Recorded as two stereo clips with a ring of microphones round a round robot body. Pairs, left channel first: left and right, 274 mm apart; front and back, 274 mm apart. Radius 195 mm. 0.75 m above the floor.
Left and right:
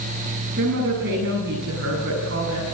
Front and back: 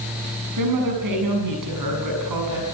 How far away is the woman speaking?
About 7.5 m.